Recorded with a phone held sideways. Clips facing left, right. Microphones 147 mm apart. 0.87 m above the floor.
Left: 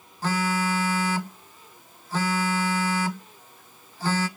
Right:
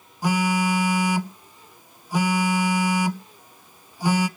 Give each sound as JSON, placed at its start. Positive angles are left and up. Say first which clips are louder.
{"t": 0.2, "sound": "a phone buzzing", "louder": "right 4 dB", "side_deg": -10, "distance_m": 0.8}